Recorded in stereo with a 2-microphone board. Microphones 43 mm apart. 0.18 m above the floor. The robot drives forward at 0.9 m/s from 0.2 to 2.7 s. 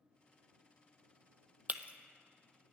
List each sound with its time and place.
1.7 s breaking glass: 40° right (ahead or behind), 0.5 m; by 1.9 s 30° right (ahead or behind), 0.7 m